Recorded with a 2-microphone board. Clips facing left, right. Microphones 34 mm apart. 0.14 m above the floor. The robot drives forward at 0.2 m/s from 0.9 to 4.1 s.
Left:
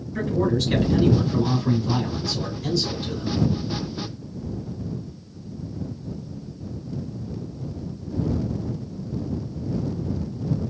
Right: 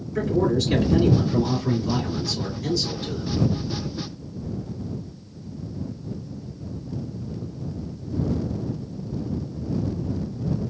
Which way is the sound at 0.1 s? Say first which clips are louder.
Right 1 dB; centre (ahead or behind).